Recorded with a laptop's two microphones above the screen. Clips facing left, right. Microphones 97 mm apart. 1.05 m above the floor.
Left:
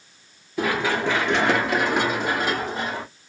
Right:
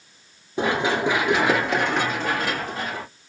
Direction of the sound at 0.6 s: 30° right (ahead or behind).